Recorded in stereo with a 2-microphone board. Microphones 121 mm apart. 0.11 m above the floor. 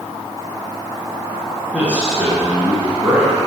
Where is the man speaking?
10° right (ahead or behind), 1.7 m.